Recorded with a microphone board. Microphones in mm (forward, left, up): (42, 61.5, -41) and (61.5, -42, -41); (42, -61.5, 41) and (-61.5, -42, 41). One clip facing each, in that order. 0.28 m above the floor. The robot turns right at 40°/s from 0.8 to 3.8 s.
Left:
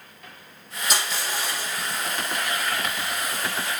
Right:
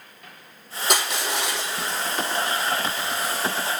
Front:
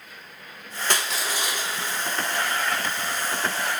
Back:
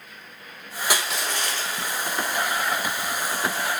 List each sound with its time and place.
0.9 s crushing: 110° right, 2.5 m; by 2.0 s 65° right, 2.5 m